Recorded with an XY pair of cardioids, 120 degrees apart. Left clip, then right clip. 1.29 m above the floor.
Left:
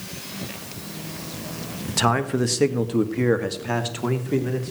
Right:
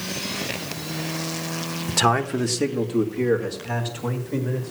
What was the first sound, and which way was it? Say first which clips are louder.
A man speaking: right 1 dB; 10° right.